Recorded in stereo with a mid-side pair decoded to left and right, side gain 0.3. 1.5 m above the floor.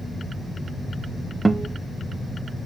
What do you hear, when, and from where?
1.4 s a guitar: 35° right, 0.9 m